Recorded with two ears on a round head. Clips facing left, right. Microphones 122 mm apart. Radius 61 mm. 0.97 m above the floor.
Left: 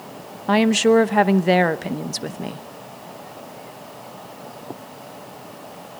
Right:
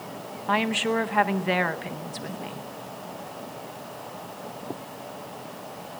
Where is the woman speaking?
50° left (ahead or behind), 0.8 m.